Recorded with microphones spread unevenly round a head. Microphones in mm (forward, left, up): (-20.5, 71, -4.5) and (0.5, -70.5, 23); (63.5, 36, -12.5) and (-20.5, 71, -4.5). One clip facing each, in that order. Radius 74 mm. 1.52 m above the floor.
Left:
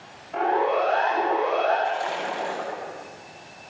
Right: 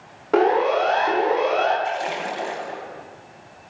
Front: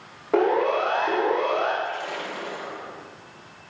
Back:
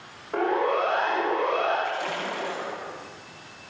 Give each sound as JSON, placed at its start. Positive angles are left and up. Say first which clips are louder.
{"t": 0.3, "sound": "a siren", "louder": "right 5 dB, front 3 dB", "azimuth_deg": -75, "distance_m": 9.0}
{"t": 1.8, "sound": "a splash", "louder": "right 1 dB, back 1 dB", "azimuth_deg": -145, "distance_m": 8.5}